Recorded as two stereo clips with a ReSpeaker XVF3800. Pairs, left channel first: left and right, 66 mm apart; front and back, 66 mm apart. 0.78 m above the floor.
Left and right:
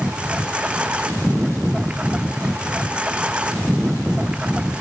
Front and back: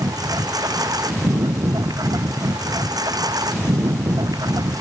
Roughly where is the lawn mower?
Behind.